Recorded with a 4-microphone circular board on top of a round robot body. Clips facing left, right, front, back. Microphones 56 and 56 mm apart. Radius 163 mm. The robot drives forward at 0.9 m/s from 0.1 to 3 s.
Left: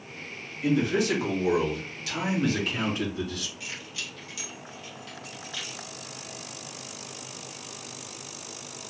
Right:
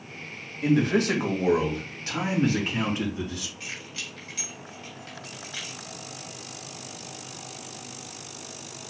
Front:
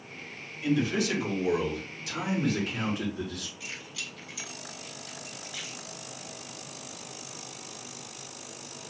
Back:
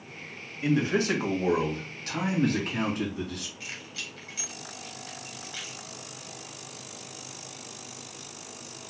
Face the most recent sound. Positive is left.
turn(degrees=-140)